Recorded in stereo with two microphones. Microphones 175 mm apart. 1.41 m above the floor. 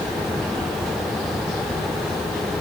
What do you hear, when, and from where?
Only background noise.